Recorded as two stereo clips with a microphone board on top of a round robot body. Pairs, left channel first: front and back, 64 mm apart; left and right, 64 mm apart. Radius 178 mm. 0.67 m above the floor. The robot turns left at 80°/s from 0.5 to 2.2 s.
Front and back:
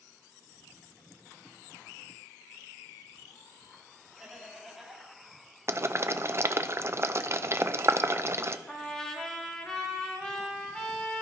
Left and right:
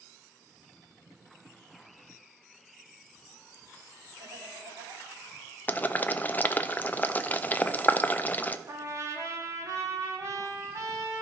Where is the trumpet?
80° right, 1.8 m.